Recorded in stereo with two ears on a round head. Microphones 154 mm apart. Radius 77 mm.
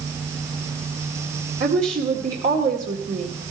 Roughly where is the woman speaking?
Right.